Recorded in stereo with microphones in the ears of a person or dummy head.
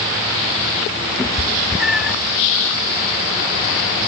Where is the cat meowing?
5° right (ahead or behind), 0.6 m.